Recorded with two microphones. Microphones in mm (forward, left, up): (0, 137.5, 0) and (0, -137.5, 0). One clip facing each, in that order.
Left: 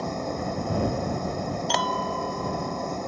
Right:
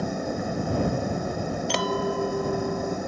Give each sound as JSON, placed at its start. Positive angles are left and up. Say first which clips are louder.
{"t": 0.0, "sound": "an engine running", "louder": "right 2 dB", "side_deg": -10}
{"t": 1.7, "sound": "a clink", "louder": "right 4 dB", "side_deg": -30}